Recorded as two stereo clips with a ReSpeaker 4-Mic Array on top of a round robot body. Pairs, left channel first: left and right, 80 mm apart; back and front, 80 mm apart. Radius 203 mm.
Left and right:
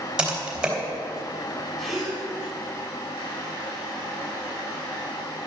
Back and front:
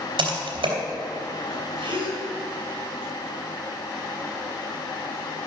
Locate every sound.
0.2 s typing on a keyboard: 5° right, 3 m
1.8 s a gasp: 5° left, 4.5 m